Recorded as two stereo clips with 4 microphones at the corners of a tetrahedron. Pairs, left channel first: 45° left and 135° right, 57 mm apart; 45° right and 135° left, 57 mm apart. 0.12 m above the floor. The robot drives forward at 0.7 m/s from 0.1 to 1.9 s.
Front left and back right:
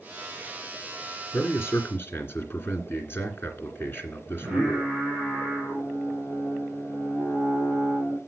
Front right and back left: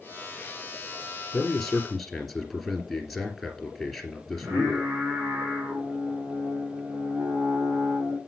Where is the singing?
155° left, 5 m.